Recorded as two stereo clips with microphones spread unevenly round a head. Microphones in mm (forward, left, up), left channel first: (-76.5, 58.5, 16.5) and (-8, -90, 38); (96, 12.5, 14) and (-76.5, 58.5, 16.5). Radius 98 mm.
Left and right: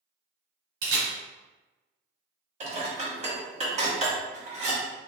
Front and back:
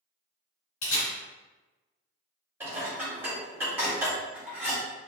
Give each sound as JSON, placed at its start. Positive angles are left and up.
{"t": 0.8, "sound": "a camera shutter", "azimuth_deg": -50, "distance_m": 1.8}
{"t": 2.6, "sound": "dishes clattering", "azimuth_deg": -115, "distance_m": 1.3}